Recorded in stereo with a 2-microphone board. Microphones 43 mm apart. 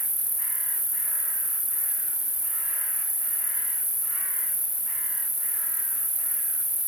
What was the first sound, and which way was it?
An insect, 40° right (ahead or behind).